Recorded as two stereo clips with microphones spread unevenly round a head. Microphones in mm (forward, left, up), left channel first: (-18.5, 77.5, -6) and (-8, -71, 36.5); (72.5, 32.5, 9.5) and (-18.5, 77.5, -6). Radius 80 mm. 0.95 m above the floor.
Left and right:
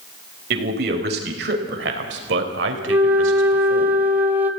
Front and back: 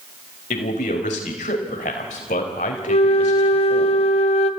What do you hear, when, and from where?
0.5 s a man speaking: 55° right, 4.5 m; by 3.9 s 80° right, 4 m
2.9 s a flute: straight ahead, 1.6 m